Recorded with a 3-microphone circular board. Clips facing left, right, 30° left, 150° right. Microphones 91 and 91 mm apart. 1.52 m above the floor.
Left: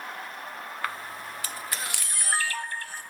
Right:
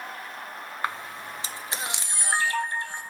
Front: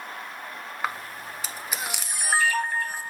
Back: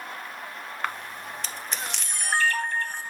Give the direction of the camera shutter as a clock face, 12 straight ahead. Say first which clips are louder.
Right 3 dB, front 1 dB; 2 o'clock.